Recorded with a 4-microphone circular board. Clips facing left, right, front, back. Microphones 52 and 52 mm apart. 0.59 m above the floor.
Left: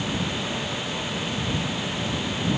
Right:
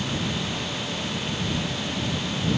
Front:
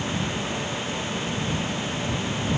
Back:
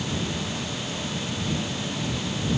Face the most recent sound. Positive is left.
No sound to turn to.